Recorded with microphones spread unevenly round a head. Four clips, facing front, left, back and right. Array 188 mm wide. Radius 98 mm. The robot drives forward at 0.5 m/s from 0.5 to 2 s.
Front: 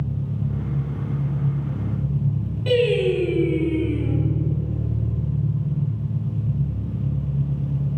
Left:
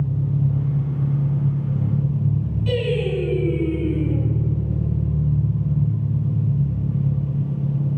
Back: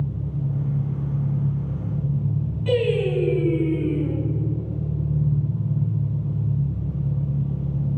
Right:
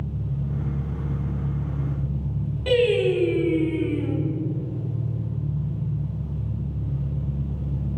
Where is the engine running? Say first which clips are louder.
Left 7 dB, front 1 dB; 50° left, 7 m; by 8.0 s 55° left, 6.5 m.